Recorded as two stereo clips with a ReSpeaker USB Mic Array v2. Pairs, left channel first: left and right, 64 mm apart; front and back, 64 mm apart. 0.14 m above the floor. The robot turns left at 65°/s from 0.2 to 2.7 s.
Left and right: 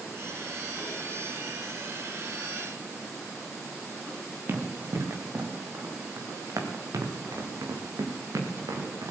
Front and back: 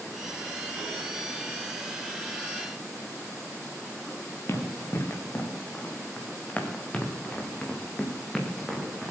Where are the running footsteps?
45° right, 3 m; by 9.1 s 90° right, 3.5 m.